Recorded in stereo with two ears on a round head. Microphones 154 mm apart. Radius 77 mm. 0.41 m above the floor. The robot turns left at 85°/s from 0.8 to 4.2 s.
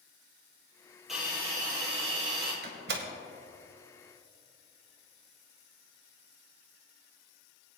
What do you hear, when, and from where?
1.1 s a hiss: straight ahead, 3 m; by 2.5 s 125° right, 3 m
2.6 s a door slam: 55° right (ahead or behind), 1.3 m; by 3.1 s 65° right (ahead or behind), 1.3 m